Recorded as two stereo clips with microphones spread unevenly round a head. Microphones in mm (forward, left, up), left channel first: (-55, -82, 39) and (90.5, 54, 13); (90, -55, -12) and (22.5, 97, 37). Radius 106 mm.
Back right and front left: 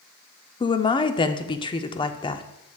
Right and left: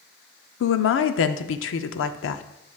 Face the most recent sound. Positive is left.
turn(degrees=-65)